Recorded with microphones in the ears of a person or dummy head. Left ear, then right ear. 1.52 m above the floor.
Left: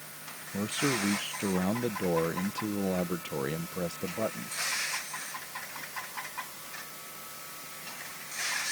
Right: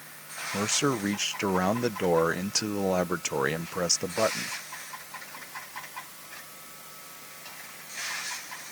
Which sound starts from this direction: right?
A man speaking, at 0.5 s.